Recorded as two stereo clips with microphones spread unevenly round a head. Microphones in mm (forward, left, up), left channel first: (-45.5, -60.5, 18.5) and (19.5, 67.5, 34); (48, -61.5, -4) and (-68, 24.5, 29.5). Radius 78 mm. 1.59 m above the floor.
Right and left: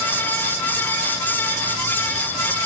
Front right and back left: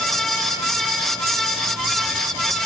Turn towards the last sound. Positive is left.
No sound to turn to.